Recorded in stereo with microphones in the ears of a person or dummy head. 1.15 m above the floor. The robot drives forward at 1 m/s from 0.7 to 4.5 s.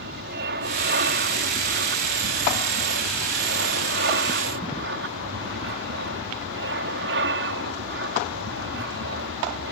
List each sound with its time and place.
0.0 s an aircraft: 60° right (ahead or behind)